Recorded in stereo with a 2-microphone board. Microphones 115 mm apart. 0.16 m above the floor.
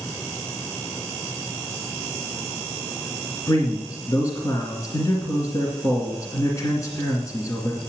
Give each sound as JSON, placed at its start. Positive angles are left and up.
{"t": 3.5, "sound": "a man speaking", "side_deg": 25, "distance_m": 2.0}